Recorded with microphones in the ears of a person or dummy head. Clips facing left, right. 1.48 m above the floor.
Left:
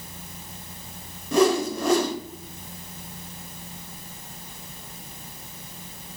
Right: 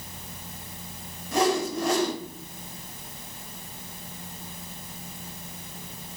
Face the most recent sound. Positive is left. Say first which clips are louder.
# left 4 dB
turn(degrees=80)